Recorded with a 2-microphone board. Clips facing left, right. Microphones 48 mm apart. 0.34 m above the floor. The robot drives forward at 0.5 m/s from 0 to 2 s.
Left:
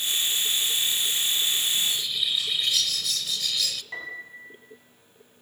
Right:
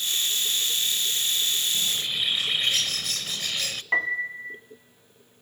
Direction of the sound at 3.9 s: 55° right (ahead or behind).